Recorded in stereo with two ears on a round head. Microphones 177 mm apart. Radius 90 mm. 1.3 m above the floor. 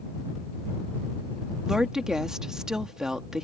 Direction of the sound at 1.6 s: 5° right (ahead or behind).